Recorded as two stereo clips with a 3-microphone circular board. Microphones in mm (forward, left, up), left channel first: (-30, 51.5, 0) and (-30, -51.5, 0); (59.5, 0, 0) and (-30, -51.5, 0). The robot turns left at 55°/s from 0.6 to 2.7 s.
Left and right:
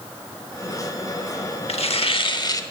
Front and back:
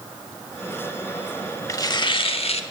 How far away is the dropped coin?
I don't hear a dropped coin.